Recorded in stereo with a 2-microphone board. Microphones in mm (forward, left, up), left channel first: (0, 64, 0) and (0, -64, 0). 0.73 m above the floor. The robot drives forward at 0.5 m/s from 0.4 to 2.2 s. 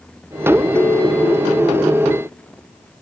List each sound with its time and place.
0.8 s a ringtone: 10° left (ahead or behind), 0.7 m; by 1.7 s 5° left (ahead or behind), 1.1 m